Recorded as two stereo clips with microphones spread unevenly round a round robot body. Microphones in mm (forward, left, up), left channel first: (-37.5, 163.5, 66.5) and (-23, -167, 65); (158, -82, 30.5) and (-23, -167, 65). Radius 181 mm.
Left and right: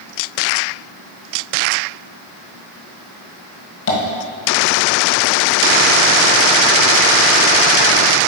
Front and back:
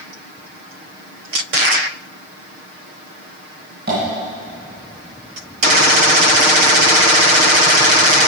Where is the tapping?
145° left, 1.5 m.